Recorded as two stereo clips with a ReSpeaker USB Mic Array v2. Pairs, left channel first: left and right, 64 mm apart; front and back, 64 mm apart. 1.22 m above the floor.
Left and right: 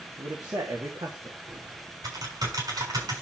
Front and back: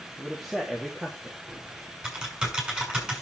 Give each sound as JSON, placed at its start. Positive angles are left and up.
{"t": 0.2, "sound": "a man speaking", "azimuth_deg": -90, "distance_m": 2.5}
{"t": 1.5, "sound": "typing on a keyboard", "azimuth_deg": -100, "distance_m": 7.0}